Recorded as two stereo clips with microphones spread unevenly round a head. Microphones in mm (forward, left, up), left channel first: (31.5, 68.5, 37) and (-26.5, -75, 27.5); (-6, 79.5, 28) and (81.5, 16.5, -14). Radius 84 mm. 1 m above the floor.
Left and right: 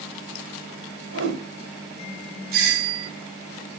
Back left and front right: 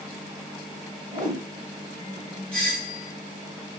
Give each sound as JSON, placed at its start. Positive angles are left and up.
{"t": 1.1, "sound": "a whoosh", "azimuth_deg": -110, "distance_m": 2.5}
{"t": 2.5, "sound": "a doorbell", "azimuth_deg": -120, "distance_m": 2.0}